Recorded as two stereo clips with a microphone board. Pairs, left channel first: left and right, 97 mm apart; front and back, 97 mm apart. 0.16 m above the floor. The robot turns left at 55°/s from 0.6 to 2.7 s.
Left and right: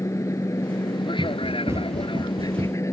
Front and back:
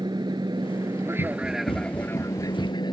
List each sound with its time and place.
0.0 s an aircraft: 145° left; by 2.9 s 35° left
1.2 s running footsteps: 5° left; by 2.8 s 80° right